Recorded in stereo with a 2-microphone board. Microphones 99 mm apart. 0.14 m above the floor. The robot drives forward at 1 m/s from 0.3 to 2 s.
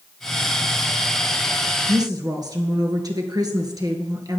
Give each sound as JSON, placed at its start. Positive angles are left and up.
{"t": 1.9, "sound": "a woman speaking", "side_deg": -40, "distance_m": 2.5}